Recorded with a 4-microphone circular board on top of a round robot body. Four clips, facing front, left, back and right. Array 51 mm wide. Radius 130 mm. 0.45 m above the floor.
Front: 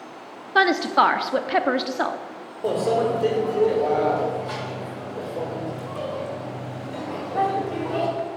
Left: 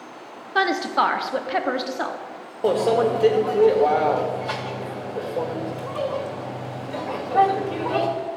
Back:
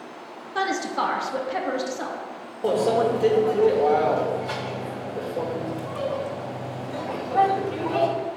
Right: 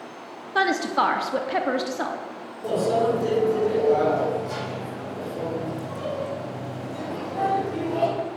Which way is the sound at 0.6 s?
10° left.